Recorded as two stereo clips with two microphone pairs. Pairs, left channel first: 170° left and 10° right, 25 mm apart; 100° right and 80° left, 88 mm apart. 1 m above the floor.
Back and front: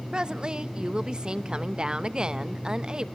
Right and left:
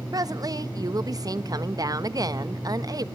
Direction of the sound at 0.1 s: 40° left.